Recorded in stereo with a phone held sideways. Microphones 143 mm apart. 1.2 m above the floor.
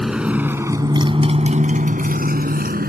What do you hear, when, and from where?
0.0 s a motorcycle: centre (ahead or behind); by 2.9 s 85° right